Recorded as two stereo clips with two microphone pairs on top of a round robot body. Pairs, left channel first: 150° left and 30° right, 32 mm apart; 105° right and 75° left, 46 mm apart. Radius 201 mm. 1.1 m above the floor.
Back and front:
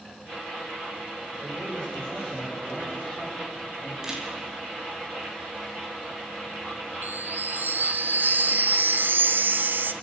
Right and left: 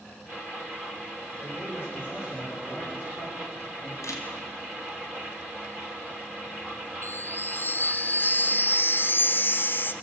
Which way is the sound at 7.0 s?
60° right.